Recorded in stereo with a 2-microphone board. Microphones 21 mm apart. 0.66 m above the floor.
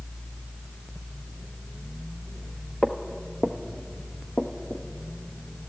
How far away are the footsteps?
About 0.9 m.